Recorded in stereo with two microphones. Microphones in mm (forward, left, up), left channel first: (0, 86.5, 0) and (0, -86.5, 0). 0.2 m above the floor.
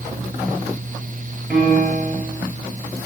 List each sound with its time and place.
1.5 s a piano: centre (ahead or behind), 1.9 m